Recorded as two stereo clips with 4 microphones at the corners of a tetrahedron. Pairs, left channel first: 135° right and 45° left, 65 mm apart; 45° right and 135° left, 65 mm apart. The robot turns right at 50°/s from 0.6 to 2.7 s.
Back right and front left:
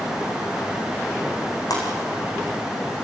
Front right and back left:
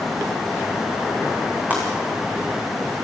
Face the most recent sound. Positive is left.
turn(degrees=-110)